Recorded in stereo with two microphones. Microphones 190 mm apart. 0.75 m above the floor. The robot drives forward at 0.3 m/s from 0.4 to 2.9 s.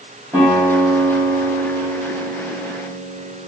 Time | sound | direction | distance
0.3 | a guitar | 15° right (ahead or behind) | 1.4 m